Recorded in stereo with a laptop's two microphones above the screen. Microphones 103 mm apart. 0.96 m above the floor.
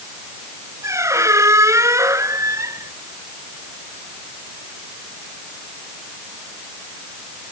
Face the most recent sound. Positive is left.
turn(degrees=-30)  # may be behind; listen again after turning